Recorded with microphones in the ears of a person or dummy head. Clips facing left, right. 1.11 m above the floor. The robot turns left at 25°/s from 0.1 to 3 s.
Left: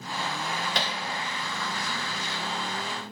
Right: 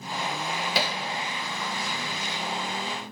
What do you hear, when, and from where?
0.8 s hammering: 5° right (ahead or behind), 0.8 m; by 1.0 s 15° right (ahead or behind), 0.8 m